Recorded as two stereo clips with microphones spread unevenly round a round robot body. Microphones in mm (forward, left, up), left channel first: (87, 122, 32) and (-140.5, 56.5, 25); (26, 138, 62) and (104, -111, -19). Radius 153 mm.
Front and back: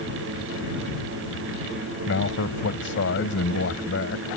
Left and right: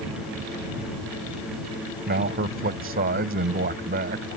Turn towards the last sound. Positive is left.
turn(degrees=-30)